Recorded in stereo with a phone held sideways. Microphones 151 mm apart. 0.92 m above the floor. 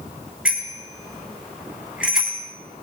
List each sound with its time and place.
0.5 s a bicycle bell: 5° right (ahead or behind), 4 m